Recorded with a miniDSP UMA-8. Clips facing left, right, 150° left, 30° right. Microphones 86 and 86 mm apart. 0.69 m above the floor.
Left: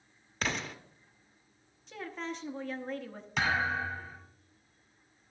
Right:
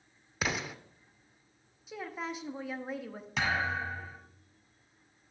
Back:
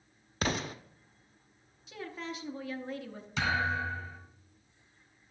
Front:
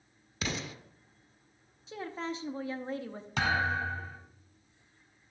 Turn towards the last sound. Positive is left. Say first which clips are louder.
# left 1 dB, front 1 dB
turn(degrees=0)